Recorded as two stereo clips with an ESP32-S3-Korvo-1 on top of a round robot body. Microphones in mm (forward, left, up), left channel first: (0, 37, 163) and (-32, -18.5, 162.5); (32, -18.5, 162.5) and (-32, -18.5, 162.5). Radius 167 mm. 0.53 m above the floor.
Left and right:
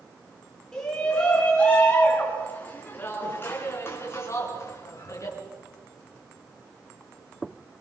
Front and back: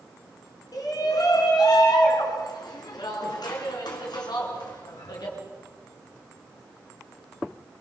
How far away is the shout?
About 7 m.